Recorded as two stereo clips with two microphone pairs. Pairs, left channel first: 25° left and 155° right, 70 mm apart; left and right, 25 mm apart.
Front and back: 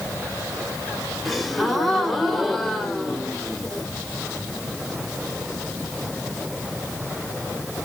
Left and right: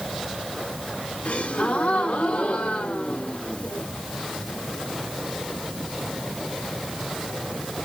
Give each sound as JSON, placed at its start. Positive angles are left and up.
{"t": 1.2, "sound": "a gasp", "azimuth_deg": 115, "distance_m": 0.9}